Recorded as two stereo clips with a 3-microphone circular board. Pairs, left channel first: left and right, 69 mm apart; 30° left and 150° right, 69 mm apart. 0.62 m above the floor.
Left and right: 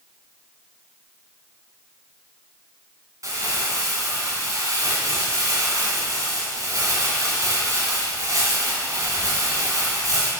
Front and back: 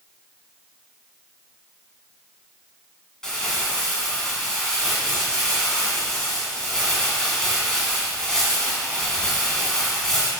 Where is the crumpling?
50° right, 2.5 m.